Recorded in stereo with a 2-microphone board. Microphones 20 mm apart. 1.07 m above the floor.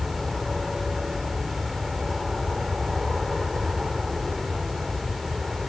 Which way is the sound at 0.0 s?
15° right (ahead or behind).